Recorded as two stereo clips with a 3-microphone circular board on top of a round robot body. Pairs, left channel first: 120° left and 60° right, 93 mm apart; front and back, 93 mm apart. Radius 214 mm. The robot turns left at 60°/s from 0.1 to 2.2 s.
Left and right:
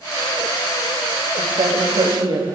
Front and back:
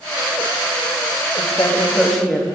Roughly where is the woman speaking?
Ahead right.